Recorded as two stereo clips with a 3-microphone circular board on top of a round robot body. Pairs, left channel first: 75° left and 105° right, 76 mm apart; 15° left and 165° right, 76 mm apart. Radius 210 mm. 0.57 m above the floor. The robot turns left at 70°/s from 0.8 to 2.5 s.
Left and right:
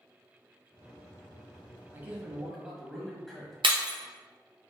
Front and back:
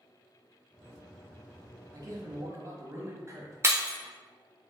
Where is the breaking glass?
105° right, 0.9 m.